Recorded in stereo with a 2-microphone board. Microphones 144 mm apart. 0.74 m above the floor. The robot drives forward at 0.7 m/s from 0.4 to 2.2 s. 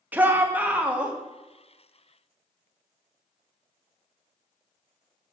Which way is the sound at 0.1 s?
10° right (ahead or behind).